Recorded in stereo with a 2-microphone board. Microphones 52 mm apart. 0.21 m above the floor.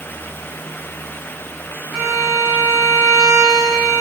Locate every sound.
1.9 s a violin: 10° left (ahead or behind), 6 m